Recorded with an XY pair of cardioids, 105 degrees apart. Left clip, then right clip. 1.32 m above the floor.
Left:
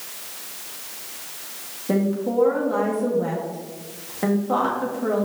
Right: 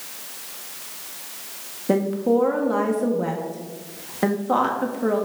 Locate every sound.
1.9 s a woman speaking: 35° right, 1.1 m